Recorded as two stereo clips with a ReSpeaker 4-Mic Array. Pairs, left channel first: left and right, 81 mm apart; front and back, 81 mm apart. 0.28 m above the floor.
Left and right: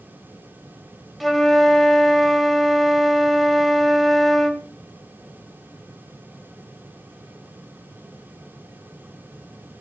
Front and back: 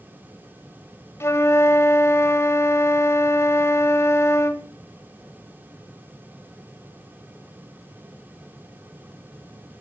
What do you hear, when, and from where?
1.2 s a flute: straight ahead, 1.2 m